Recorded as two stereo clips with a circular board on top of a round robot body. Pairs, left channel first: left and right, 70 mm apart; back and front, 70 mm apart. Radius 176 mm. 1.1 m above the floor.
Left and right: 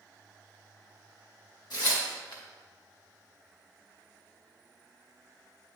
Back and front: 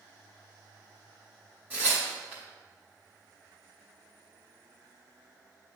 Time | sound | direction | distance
1.7 | tearing paper | 65° left | 1.4 m